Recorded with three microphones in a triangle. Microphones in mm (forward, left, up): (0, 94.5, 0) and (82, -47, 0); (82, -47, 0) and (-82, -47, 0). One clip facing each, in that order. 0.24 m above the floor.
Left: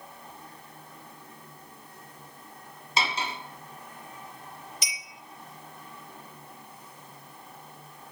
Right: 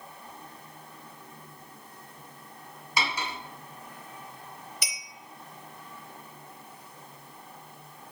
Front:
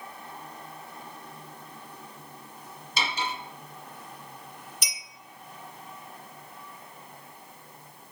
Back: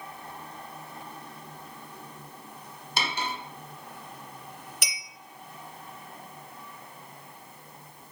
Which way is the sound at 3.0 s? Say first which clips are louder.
Left 1 dB, even; straight behind.